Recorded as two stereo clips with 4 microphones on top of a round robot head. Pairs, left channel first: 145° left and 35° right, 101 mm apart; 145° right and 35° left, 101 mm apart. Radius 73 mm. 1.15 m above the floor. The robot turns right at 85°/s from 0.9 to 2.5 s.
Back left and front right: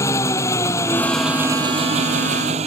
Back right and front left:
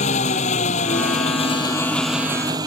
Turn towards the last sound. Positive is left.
turn(degrees=-15)